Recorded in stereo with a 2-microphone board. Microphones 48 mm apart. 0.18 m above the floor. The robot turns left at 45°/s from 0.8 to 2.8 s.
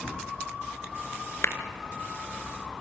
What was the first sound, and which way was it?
A clap, 60° left (ahead or behind).